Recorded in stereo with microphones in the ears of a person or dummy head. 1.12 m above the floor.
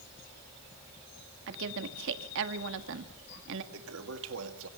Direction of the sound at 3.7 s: 80° right.